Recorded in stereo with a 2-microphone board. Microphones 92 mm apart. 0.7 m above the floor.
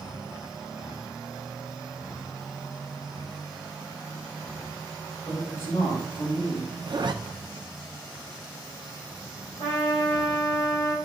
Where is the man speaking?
65° left (ahead or behind), 3.5 m.